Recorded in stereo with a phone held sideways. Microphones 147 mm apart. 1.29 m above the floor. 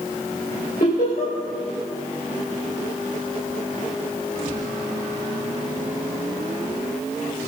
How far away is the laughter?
About 4.5 m.